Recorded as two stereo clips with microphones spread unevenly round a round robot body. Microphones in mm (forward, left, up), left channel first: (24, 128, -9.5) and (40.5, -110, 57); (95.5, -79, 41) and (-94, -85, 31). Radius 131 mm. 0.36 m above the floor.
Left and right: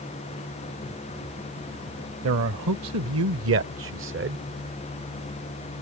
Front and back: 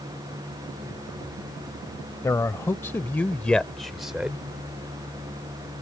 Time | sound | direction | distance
2.2 | a man speaking | 70° right | ?